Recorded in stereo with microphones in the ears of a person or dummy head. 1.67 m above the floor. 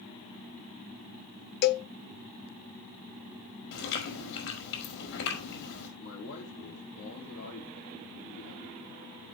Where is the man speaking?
75° left (ahead or behind), 4 m.